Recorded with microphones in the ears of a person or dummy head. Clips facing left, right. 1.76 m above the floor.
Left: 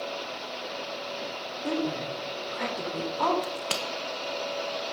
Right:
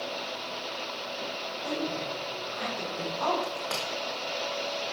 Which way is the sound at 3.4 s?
50° left (ahead or behind).